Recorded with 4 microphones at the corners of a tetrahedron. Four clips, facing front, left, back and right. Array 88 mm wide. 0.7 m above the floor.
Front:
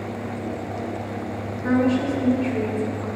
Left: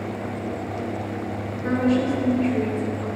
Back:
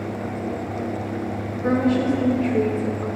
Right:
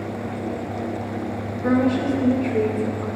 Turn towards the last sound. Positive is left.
turn(degrees=-135)